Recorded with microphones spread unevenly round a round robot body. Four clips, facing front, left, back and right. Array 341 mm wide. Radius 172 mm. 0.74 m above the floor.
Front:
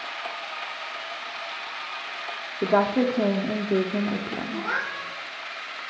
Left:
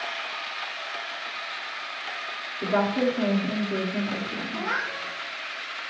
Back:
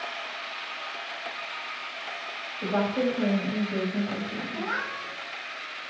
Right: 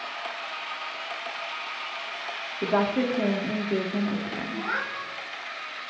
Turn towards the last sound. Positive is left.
turn(degrees=15)